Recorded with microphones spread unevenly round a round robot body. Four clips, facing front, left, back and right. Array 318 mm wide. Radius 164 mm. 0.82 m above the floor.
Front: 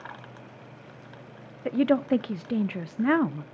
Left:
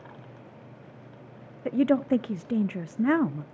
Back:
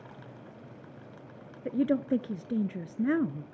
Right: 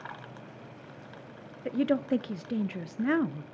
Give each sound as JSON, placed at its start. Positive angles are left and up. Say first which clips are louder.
{"t": 1.6, "sound": "a woman speaking", "louder": "left 4 dB, front 4 dB", "azimuth_deg": 55, "distance_m": 0.6}